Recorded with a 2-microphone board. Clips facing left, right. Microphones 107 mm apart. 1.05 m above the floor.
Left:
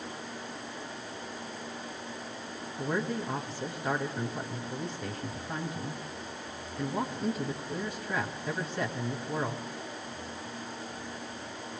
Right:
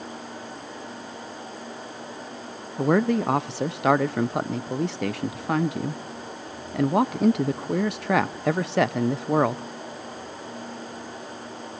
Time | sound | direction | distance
2.8 | a man speaking | 75° right (ahead or behind) | 0.7 m